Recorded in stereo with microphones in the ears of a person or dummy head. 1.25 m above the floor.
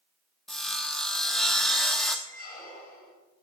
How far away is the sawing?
About 1.1 m.